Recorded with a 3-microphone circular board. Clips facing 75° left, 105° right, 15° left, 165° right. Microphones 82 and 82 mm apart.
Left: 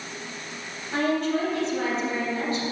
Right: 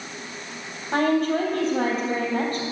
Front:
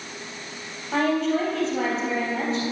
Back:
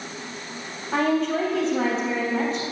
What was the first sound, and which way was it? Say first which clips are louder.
A woman speaking: right 3 dB, even; 70° right.